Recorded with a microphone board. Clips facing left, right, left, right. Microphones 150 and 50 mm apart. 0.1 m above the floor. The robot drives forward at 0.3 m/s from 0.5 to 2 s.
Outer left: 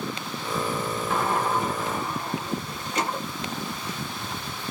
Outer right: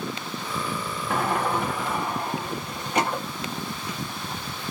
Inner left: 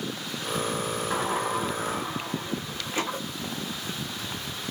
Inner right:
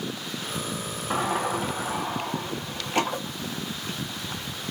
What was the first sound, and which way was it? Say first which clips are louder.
A sliding door: outer right 1 dB, inner right 3 dB; 60° right (ahead or behind).